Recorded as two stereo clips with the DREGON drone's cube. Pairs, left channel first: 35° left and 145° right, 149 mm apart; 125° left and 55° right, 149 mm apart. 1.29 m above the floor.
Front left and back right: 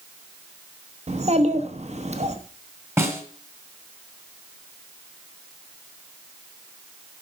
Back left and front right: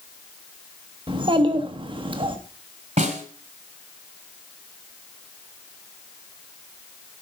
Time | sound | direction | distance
1.1 | a child speaking | 110° right | 1.2 m
3.0 | a snare drum | 75° right | 1.8 m